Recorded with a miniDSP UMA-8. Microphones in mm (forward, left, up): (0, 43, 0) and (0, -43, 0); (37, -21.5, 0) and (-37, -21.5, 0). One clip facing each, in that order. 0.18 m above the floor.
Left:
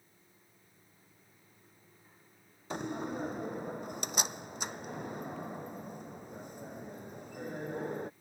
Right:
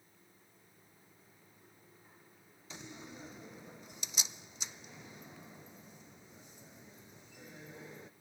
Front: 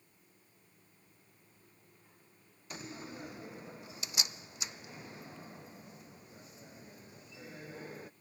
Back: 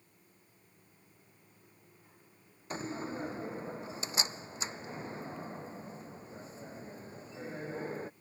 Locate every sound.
2.7 s a door slam: 125° left